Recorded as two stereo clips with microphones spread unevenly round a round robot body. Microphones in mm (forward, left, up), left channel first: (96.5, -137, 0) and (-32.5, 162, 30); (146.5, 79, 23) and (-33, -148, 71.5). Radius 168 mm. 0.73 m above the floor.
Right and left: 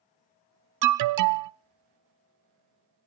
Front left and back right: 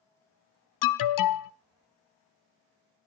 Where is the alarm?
75° left, 0.6 m.